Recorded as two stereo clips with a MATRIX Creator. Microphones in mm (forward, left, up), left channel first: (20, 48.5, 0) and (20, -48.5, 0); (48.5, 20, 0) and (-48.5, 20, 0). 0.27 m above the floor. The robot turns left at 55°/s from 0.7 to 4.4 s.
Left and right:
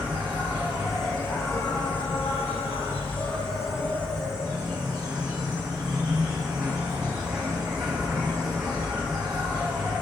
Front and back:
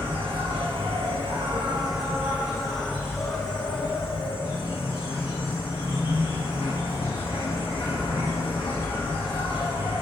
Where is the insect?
165° right, 1.6 m; by 10.0 s 5° right, 1.6 m.